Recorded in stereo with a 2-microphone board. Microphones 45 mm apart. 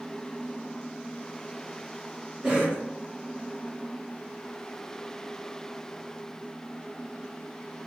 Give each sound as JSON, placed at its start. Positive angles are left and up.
{"t": 2.4, "sound": "a cough", "side_deg": -20, "distance_m": 1.5}